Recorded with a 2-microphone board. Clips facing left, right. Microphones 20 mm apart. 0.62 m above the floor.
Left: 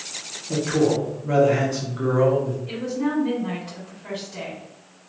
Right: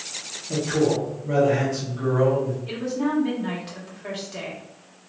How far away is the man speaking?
About 1.3 m.